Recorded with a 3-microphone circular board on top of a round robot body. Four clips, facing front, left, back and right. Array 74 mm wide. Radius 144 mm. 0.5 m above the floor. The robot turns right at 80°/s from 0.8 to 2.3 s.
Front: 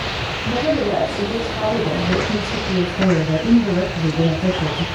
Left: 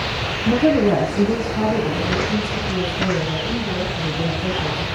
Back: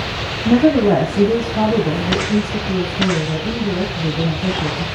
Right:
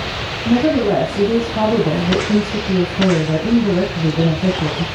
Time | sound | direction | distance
0.5 | a woman speaking | 175° right | 5.5 m